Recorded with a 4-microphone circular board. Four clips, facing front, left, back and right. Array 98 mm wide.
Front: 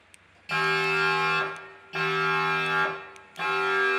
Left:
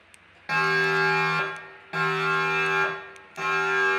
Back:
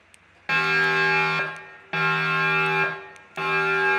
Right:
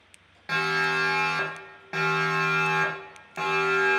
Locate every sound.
0.5 s a siren: straight behind, 3.5 m; by 4.0 s 145° right, 5.5 m